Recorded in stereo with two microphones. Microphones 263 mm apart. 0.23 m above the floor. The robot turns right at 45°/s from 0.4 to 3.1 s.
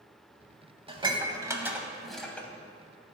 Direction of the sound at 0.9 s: 20° right (ahead or behind).